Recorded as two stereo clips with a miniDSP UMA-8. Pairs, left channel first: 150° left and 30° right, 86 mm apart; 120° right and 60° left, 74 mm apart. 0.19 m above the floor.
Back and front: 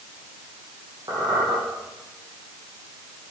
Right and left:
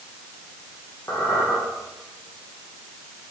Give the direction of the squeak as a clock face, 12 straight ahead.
2 o'clock.